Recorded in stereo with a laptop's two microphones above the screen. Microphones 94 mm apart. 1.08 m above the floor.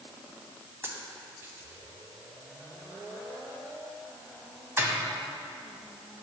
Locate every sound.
0.8 s a dropped coin: 25° right (ahead or behind), 1.4 m